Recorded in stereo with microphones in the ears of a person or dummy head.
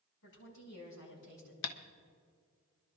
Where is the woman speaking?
70° left (ahead or behind), 6 m; by 1.5 s 60° left (ahead or behind), 6.5 m.